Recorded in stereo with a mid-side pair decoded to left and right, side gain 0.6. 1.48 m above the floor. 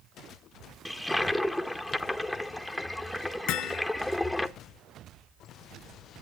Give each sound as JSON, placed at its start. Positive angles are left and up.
{"t": 0.8, "sound": "a toilet flushing", "azimuth_deg": 5, "distance_m": 1.3}
{"t": 3.5, "sound": "hammering", "azimuth_deg": 70, "distance_m": 1.2}